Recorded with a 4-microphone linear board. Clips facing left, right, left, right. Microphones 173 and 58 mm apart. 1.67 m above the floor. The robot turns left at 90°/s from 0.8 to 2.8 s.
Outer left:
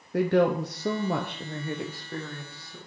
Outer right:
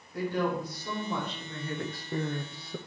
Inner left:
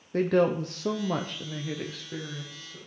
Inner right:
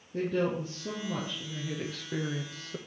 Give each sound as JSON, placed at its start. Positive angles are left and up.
{"t": 0.1, "sound": "a woman speaking", "azimuth_deg": 105, "distance_m": 0.7}